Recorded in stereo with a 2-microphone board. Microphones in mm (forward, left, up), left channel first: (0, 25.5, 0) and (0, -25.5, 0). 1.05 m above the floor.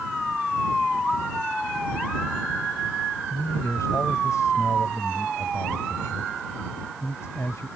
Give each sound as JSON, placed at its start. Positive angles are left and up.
{"t": 3.3, "sound": "a man speaking", "side_deg": 85}